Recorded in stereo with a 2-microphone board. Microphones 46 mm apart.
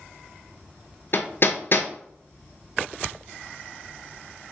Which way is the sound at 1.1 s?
50° left (ahead or behind).